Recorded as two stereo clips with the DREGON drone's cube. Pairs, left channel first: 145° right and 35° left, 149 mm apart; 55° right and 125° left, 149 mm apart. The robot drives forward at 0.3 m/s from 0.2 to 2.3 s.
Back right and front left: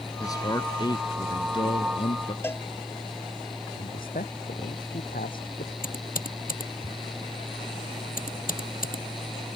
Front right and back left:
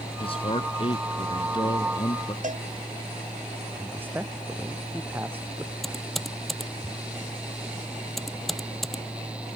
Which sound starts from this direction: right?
A man speaking, at 0.2 s.